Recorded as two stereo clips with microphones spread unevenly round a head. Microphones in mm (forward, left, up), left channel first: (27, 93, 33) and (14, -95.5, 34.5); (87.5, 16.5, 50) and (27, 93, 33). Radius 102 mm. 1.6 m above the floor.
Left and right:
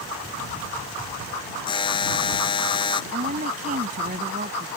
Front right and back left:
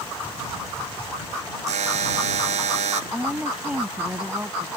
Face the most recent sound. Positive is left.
turn(degrees=-150)